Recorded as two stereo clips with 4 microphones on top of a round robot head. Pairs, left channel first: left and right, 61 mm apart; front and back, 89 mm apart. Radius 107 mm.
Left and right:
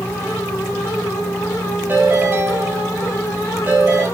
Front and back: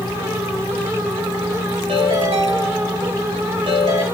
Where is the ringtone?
150° right, 4 m.